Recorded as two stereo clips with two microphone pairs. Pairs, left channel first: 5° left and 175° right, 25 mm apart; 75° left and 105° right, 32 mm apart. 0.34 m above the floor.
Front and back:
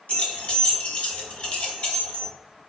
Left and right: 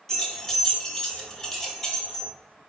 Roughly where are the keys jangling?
Ahead.